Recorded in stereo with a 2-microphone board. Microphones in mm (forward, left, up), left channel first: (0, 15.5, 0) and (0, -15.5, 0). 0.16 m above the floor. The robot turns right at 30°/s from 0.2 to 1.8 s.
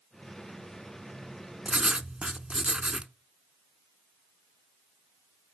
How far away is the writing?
About 0.7 m.